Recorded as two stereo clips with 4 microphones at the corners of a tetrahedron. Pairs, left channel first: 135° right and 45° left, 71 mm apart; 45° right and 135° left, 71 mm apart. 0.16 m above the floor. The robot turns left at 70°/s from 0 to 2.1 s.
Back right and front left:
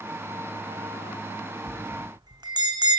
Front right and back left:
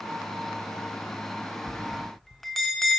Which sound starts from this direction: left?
A bell, at 1.7 s.